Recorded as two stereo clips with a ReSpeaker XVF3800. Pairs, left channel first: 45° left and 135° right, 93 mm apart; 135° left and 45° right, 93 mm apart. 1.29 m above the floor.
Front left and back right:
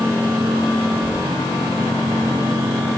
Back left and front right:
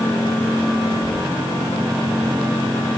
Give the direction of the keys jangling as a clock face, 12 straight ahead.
12 o'clock.